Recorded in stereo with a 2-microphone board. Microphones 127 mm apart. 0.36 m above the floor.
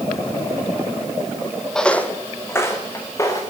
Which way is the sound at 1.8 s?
5° left (ahead or behind).